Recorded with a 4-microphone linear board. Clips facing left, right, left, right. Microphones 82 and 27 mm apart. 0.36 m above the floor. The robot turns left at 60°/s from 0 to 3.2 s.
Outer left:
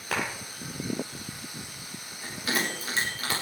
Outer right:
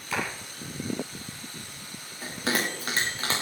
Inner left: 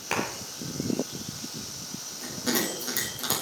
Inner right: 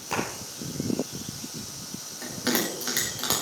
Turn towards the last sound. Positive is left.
turn(degrees=-35)  # may be behind; listen again after turning